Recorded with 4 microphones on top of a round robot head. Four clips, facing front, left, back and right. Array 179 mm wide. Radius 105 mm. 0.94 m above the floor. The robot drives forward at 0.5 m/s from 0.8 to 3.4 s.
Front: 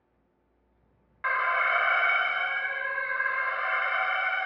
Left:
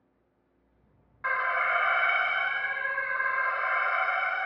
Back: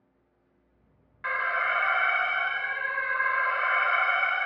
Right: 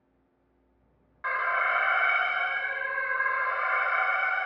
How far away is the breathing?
I don't hear breathing.